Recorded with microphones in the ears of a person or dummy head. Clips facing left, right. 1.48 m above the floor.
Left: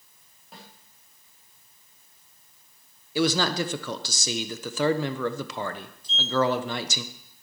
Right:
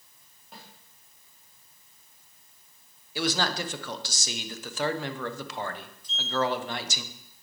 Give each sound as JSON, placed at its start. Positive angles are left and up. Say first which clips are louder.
{"t": 0.5, "sound": "a snare drum", "louder": "left 1 dB", "side_deg": 0, "distance_m": 3.0}
{"t": 3.1, "sound": "a man speaking", "louder": "left 5 dB", "side_deg": 65, "distance_m": 0.9}
{"t": 6.0, "sound": "a sliding door", "louder": "left 5 dB", "side_deg": 30, "distance_m": 0.9}